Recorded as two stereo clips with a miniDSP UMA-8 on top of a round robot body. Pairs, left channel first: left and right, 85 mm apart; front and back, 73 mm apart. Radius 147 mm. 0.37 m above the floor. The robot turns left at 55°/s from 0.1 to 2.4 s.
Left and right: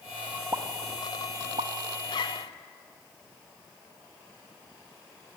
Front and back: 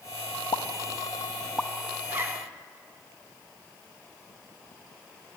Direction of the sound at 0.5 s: 25° right.